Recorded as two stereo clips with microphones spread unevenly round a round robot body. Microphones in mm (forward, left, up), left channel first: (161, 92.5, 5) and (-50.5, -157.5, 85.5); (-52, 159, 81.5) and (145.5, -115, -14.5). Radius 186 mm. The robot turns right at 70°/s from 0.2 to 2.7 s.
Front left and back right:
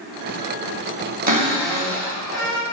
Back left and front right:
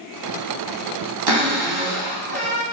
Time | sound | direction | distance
1.3 | a cupboard door | 65° right | 2 m